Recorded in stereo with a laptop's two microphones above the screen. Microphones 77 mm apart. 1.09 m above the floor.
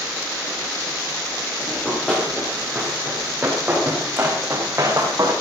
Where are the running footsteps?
5° left (ahead or behind), 6 m; by 5.3 s 45° right (ahead or behind), 4.5 m.